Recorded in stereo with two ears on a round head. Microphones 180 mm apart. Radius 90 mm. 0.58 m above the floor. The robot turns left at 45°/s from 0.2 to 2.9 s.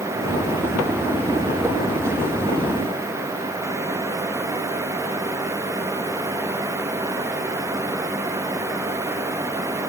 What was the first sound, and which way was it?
Only background noise.